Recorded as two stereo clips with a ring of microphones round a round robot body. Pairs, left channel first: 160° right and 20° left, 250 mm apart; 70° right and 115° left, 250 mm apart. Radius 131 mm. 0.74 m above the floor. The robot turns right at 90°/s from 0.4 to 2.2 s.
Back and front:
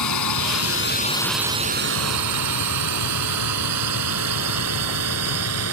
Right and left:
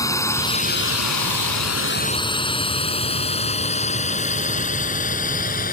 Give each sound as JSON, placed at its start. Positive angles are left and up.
{"t": 0.0, "sound": "a drone", "azimuth_deg": -145}